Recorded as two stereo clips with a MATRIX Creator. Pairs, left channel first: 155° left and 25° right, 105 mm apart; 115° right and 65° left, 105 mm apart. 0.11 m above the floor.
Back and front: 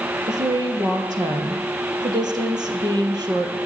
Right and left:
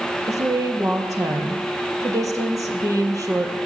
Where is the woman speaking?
15° left, 3 m.